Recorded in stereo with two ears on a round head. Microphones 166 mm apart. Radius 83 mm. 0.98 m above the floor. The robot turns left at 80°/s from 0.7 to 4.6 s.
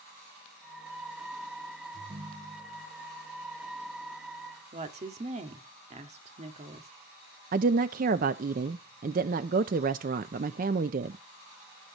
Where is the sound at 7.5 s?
50° right (ahead or behind), 0.6 m.